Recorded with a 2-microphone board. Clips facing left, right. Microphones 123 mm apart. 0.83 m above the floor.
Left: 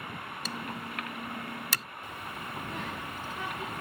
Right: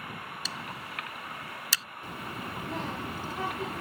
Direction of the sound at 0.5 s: 50° left (ahead or behind).